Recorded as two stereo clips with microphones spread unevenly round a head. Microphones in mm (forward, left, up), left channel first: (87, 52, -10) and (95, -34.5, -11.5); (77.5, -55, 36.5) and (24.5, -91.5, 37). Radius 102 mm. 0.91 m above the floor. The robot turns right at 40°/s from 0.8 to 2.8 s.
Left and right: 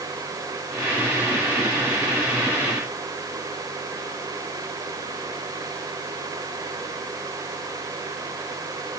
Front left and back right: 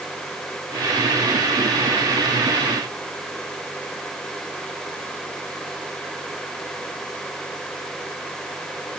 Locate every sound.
Only background noise.